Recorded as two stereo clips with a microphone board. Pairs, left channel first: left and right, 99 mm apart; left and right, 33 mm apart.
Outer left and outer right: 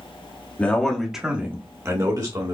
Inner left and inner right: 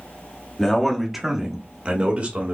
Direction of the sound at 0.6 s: 15° left (ahead or behind).